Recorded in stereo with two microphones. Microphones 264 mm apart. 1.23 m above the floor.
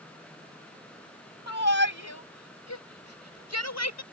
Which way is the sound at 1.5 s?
90° left.